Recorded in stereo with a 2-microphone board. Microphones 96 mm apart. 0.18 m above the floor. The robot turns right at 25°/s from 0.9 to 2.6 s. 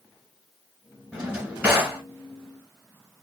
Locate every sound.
1.1 s a drawer: 5° right (ahead or behind), 1.3 m; by 2.0 s 25° right (ahead or behind), 1.3 m